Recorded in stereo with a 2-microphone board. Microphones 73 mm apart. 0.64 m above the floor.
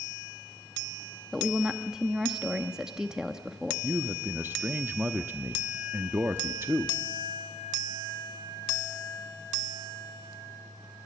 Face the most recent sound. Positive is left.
turn(degrees=-25)  # may be behind; listen again after turning